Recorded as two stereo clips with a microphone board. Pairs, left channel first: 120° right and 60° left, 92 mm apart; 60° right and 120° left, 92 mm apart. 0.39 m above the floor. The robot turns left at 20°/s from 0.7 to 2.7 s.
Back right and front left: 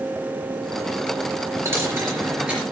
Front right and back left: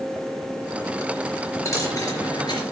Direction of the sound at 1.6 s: Straight ahead.